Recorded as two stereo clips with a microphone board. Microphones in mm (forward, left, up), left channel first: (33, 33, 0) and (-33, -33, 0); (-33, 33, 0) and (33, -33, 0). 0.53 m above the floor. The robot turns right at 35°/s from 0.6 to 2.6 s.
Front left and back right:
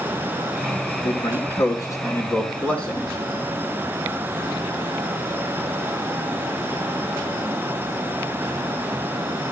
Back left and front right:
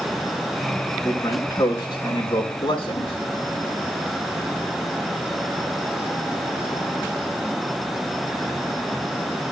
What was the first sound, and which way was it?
A man speaking, 65° left.